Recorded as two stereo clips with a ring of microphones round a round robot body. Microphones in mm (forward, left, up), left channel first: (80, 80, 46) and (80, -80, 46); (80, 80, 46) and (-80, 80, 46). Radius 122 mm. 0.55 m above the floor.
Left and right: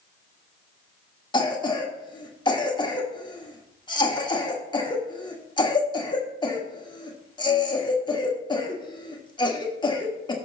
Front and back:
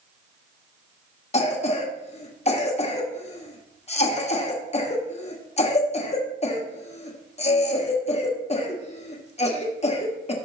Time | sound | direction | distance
1.3 | a cough | 35° left | 1.4 m